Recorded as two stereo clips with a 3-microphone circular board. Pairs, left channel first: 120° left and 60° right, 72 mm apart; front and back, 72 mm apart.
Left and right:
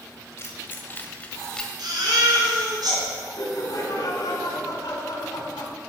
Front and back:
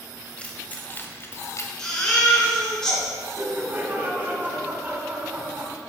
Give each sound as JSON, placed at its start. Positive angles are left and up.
{"t": 0.4, "sound": "keys jangling", "azimuth_deg": 75, "distance_m": 1.6}
{"t": 1.8, "sound": "a baby crying", "azimuth_deg": -80, "distance_m": 3.5}
{"t": 3.4, "sound": "laughter", "azimuth_deg": 125, "distance_m": 2.5}